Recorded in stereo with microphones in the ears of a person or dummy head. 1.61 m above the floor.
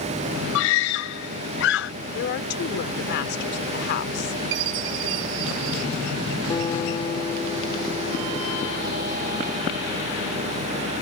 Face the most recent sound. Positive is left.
turn(degrees=25)  # may be behind; listen again after turning